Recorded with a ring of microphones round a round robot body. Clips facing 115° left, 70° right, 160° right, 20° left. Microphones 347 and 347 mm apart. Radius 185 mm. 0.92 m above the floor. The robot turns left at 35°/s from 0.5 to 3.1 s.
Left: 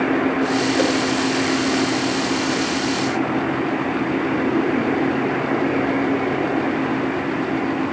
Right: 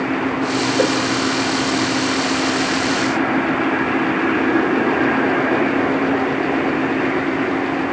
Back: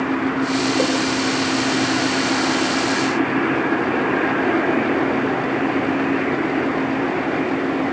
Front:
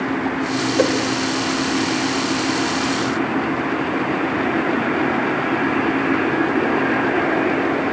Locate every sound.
0.8 s a whoosh: 60° left, 2.5 m; by 1.0 s 50° left, 2.5 m